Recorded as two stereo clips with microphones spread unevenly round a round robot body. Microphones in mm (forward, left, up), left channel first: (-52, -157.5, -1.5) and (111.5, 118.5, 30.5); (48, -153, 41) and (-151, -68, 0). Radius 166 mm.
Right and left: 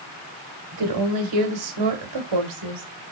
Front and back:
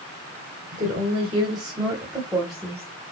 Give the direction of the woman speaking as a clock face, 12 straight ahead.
9 o'clock.